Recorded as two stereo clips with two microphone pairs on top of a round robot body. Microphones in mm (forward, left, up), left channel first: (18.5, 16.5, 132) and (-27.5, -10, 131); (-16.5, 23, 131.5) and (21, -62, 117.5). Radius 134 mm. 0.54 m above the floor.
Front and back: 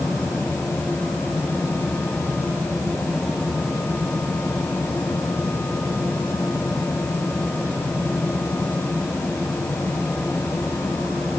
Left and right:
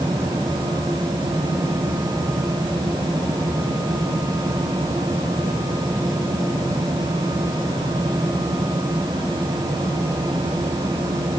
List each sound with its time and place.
Only background noise.